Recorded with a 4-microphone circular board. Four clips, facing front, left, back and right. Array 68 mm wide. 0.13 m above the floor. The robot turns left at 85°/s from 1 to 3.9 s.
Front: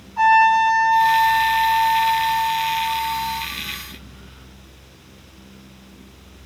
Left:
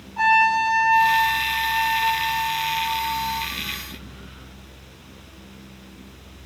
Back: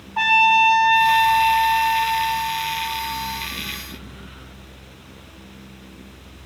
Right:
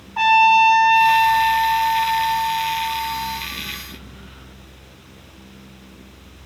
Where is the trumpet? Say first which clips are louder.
Right 5 dB, front 3 dB; 145° right, 2.5 m; by 3.5 s 5° left, 2.5 m.